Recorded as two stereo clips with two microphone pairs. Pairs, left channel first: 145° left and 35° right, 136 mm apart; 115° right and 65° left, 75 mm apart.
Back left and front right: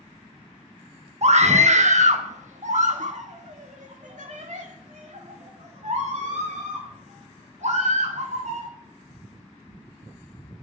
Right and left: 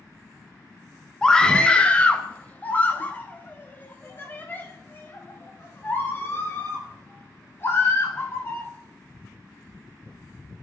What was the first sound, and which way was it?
A scream, 35° right.